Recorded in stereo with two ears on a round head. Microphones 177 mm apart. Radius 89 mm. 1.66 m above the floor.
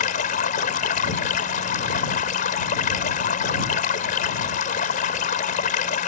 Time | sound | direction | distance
0.0 | running water | 40° left (ahead or behind) | ?